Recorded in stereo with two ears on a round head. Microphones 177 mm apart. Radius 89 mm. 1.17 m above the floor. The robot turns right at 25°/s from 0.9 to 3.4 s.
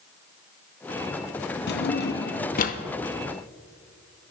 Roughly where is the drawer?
Left.